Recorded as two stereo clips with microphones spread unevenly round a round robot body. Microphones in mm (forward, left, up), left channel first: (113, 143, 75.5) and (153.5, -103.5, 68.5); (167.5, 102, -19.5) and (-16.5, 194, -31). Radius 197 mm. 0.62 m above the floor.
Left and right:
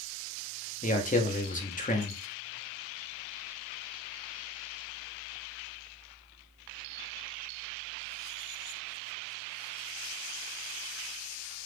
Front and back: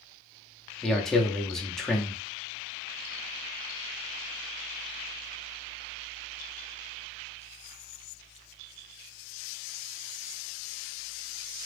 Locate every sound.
0.8 s a man speaking: 65° left, 0.8 m